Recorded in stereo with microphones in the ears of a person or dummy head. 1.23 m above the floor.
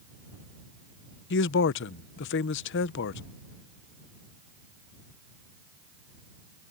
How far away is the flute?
No flute in this recording.